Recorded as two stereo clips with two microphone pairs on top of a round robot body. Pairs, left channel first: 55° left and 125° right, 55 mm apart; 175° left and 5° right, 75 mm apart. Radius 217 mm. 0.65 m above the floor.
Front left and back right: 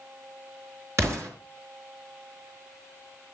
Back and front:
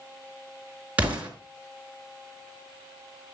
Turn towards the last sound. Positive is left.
turn(degrees=-85)